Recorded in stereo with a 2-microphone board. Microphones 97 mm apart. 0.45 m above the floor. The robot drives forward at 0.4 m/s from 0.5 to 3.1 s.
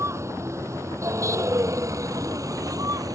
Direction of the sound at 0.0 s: 30° right (ahead or behind).